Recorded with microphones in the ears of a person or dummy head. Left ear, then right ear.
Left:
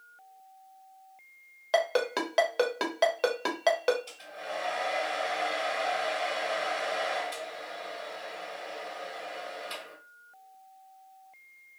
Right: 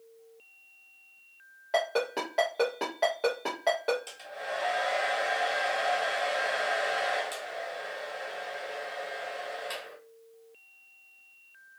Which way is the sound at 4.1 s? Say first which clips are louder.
Right 2 dB; 40° right (ahead or behind).